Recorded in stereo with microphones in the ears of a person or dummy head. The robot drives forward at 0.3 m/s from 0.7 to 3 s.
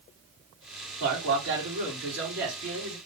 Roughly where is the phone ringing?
I don't hear a phone ringing.